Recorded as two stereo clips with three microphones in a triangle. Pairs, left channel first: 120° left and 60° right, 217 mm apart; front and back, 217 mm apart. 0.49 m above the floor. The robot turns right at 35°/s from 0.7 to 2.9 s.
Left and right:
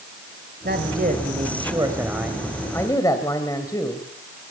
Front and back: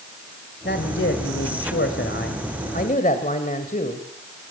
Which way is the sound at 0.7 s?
30° right.